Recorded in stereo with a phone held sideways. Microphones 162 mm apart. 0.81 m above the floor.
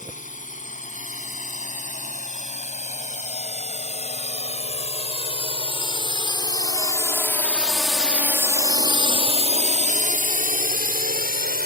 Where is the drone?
55° left (ahead or behind); by 11.7 s 65° right (ahead or behind).